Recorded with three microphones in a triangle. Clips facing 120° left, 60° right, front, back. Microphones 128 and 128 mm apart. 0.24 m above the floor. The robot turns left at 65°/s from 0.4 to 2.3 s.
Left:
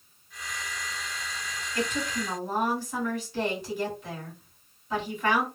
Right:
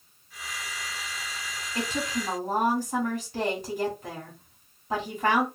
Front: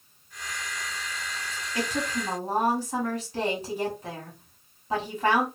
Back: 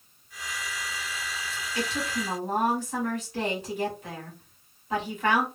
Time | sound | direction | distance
1.8 | a woman speaking | 5° right | 1.5 m